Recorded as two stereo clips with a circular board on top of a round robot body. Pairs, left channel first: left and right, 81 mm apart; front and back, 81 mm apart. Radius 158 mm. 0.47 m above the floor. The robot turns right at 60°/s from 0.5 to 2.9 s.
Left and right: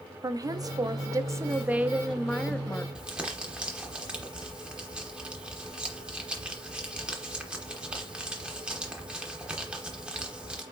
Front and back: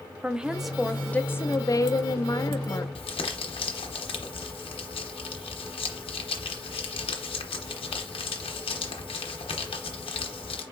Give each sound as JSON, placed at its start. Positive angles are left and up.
{"t": 0.2, "sound": "a woman speaking", "azimuth_deg": -100, "distance_m": 0.9}
{"t": 3.0, "sound": "crumpling", "azimuth_deg": -10, "distance_m": 0.8}